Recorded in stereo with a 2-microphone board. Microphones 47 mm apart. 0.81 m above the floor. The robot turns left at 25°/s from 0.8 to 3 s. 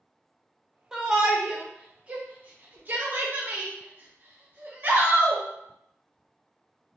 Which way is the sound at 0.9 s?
10° right (ahead or behind).